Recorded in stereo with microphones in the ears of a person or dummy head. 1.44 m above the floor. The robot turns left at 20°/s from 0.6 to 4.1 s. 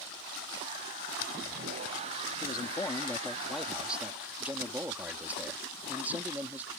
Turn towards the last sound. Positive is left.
turn(degrees=-10)